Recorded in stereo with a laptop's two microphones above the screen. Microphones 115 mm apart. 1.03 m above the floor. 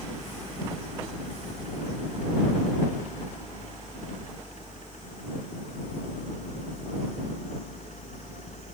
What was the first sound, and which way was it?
A fan, 90° left.